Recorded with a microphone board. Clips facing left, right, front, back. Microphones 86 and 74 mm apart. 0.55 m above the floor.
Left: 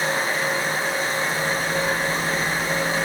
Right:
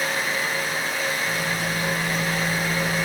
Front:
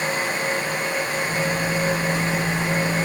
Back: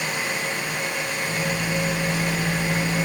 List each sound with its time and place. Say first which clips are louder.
1.3 s a microwave: left 2 dB, front 2 dB; 80° right, 2.5 m